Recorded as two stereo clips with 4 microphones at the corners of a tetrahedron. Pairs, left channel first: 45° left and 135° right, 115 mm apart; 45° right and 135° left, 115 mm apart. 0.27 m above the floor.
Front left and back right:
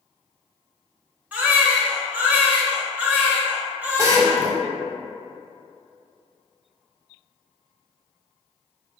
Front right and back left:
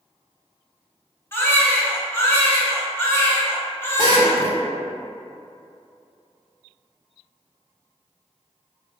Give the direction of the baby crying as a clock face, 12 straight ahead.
3 o'clock.